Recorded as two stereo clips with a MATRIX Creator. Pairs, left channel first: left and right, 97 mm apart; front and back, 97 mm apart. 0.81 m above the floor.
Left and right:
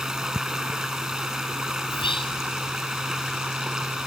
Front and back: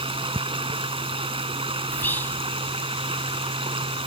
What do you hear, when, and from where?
0.0 s running water: 175° right
1.9 s whispering: 70° left